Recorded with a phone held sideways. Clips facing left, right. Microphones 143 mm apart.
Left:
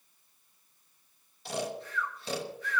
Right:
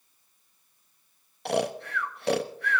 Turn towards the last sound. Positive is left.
turn(degrees=-65)  # may be behind; listen again after turning